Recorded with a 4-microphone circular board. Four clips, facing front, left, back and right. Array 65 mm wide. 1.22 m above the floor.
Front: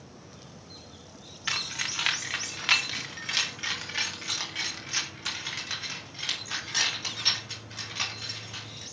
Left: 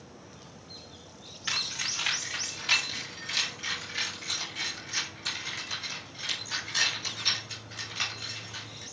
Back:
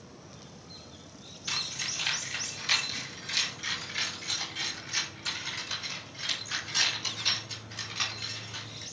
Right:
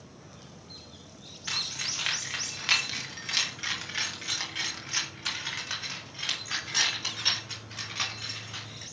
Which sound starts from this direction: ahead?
Keys jangling, at 1.5 s.